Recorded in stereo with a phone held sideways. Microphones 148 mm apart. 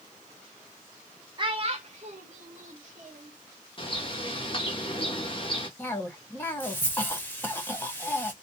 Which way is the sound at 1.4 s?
35° right (ahead or behind).